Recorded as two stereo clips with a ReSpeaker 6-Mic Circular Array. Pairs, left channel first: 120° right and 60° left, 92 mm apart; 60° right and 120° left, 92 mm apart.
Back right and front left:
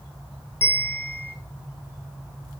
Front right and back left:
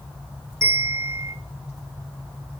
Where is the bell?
175° left, 0.6 m.